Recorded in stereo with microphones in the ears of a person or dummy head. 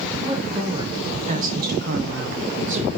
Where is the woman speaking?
25° right (ahead or behind), 3 m; by 2.9 s 35° right (ahead or behind), 1.4 m.